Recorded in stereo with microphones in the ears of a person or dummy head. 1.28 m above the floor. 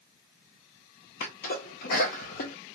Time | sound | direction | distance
1.2 | a sneeze | 50° left (ahead or behind) | 0.6 m